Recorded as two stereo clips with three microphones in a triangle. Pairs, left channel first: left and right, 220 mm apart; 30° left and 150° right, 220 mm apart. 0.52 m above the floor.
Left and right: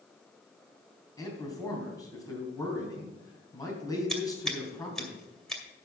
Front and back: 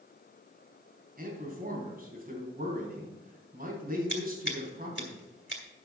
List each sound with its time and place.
1.2 s a man speaking: 165° left, 3.5 m
4.1 s scissors: straight ahead, 2 m